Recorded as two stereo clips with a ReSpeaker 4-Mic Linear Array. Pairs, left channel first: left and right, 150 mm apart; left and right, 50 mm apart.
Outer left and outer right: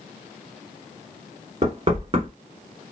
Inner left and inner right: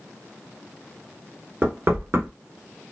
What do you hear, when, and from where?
1.6 s knocking: 40° right (ahead or behind), 1.2 m